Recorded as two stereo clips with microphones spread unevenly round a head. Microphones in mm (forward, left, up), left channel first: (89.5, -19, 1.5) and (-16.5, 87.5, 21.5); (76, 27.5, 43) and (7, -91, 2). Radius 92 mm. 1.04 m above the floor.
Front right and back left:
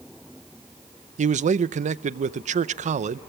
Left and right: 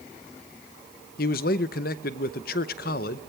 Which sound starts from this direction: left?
A man speaking, at 1.2 s.